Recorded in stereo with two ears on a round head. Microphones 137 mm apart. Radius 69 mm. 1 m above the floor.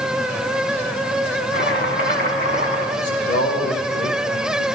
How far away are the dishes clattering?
No dishes clattering in this recording.